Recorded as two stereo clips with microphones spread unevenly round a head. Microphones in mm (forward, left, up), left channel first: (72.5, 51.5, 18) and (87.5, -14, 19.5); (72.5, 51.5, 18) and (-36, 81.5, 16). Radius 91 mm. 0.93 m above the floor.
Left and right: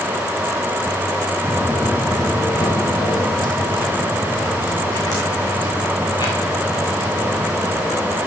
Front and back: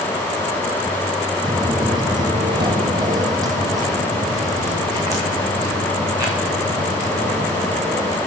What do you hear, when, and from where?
1.4 s footsteps: 175° right, 1.0 m; by 8.2 s 100° left, 8 m